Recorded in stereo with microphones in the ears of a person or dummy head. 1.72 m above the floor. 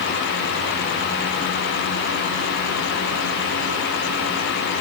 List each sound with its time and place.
Only background noise.